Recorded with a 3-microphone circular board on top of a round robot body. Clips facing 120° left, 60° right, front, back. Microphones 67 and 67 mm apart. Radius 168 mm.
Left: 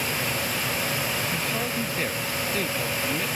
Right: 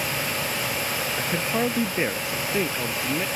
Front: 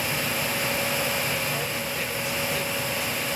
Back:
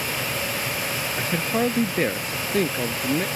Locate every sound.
1.2 s a man speaking: 125° right; by 3.3 s 140° right